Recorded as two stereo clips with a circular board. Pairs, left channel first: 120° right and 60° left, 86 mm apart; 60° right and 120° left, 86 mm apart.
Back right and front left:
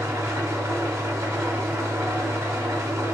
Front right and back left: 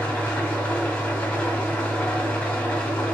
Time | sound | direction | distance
0.0 | an engine running | 10° left | 1.2 m